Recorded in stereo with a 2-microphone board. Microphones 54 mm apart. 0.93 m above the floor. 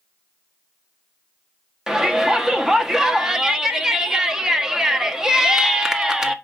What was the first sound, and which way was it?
A shout, 10° right (ahead or behind).